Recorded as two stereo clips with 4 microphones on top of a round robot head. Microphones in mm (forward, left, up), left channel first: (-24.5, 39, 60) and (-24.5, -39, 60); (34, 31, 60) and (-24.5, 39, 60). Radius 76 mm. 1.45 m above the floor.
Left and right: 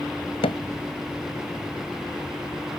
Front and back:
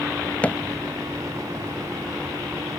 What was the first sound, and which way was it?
Hammering, 60° left.